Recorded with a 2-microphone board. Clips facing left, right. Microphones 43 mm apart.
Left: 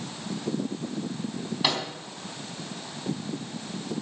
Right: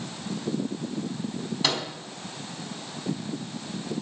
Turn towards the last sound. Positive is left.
turn(degrees=15)  # may be behind; listen again after turning